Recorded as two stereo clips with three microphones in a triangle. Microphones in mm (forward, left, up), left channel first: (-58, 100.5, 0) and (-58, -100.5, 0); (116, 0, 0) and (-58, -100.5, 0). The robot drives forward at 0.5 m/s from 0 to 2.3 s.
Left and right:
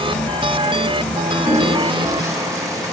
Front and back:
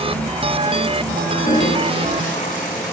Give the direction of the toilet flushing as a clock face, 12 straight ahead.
1 o'clock.